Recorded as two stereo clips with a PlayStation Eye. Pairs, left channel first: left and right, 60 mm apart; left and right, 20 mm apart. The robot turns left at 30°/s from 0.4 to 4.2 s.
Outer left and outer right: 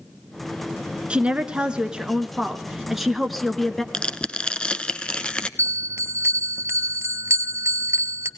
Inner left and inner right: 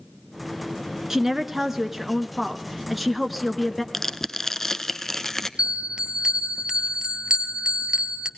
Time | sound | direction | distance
1.1 | a woman speaking | 20° right (ahead or behind) | 1.1 m
3.9 | tearing paper | 15° left (ahead or behind) | 0.7 m
5.6 | a bell | 45° right (ahead or behind) | 1.1 m